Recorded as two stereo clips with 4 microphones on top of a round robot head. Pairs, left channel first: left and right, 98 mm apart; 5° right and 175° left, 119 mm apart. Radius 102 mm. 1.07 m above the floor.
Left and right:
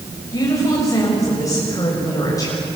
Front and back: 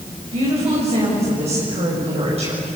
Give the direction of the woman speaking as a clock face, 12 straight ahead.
7 o'clock.